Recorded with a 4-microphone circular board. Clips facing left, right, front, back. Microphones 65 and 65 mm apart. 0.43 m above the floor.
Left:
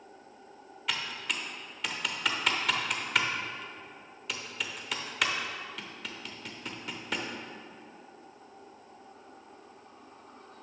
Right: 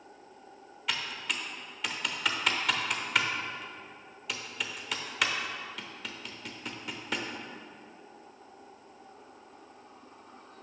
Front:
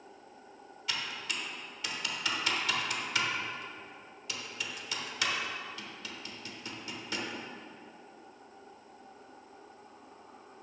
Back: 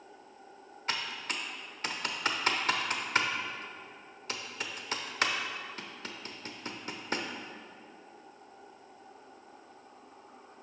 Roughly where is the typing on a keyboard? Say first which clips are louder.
Even, back 2 dB; behind.